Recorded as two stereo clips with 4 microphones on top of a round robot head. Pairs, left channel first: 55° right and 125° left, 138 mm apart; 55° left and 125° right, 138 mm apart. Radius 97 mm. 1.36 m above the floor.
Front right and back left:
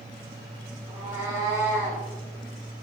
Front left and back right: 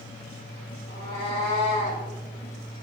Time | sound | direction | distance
0.9 | a cat meowing | 65° left | 7 m